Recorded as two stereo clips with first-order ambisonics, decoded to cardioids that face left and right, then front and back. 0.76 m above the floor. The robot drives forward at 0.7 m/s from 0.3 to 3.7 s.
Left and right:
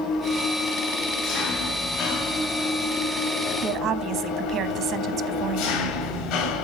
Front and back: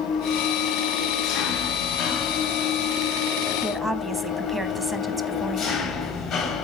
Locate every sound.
0.0 s an engine running: 45° left, 4.5 m; by 6.7 s 75° left, 3 m
3.6 s a woman speaking: 110° right, 1.2 m; by 5.8 s 115° right, 1.2 m